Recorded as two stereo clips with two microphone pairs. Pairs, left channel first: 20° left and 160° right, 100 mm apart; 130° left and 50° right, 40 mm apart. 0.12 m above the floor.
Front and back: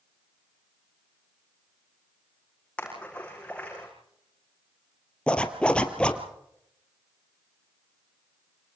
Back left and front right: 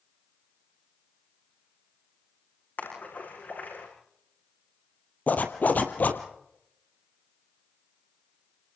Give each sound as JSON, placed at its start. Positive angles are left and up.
{"t": 2.8, "sound": "a splash", "azimuth_deg": 95, "distance_m": 8.5}
{"t": 5.3, "sound": "a zipper", "azimuth_deg": 95, "distance_m": 1.9}